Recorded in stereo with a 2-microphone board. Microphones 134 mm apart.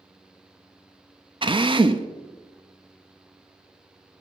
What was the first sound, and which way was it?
A drill, 40° right (ahead or behind).